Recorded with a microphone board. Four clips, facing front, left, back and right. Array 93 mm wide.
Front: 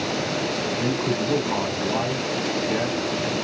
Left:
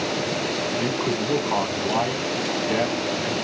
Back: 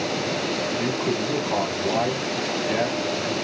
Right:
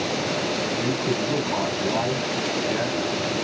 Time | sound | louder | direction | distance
0.8 | a man speaking | even, front 1 dB | 85° left | 1.2 m